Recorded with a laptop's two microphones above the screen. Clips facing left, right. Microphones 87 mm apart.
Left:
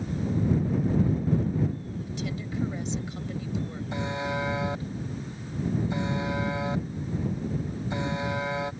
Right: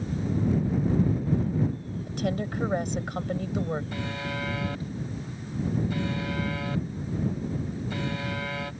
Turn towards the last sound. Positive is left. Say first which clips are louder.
# left 3 dB
turn(degrees=25)  # may be behind; listen again after turning